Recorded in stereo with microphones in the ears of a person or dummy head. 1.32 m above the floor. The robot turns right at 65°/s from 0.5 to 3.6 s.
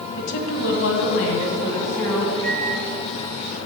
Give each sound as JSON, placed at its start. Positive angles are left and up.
{"t": 0.2, "sound": "a woman speaking", "azimuth_deg": 70, "distance_m": 1.5}
{"t": 2.4, "sound": "a microwave", "side_deg": -65, "distance_m": 2.0}